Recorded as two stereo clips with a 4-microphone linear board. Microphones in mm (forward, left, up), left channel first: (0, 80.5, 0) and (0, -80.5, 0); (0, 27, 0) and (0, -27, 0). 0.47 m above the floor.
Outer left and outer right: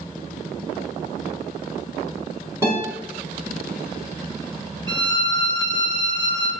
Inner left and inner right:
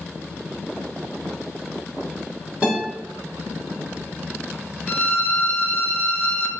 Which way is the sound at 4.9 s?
25° left (ahead or behind).